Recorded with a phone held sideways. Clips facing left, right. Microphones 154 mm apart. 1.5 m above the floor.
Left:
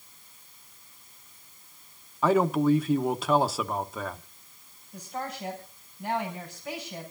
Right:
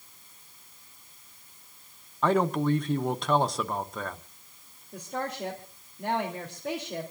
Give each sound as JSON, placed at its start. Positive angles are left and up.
{"t": 2.2, "sound": "a man speaking", "side_deg": 5, "distance_m": 0.8}
{"t": 4.9, "sound": "a woman speaking", "side_deg": -75, "distance_m": 3.0}